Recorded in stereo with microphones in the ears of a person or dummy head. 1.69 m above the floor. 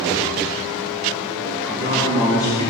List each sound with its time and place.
1.7 s a man speaking: 40° left (ahead or behind), 2.0 m; by 2.7 s 30° left (ahead or behind), 3 m